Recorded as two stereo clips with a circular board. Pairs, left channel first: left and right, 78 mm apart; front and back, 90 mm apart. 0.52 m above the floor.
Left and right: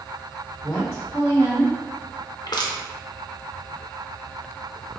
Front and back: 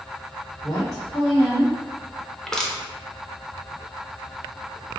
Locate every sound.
0.6 s a woman speaking: 50° left, 1.7 m
2.5 s crushing: 80° left, 0.7 m